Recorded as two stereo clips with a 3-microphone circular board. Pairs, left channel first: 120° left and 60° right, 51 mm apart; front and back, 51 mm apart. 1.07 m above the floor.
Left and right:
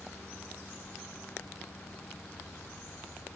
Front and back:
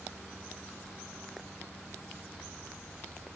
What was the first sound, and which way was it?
Only background noise.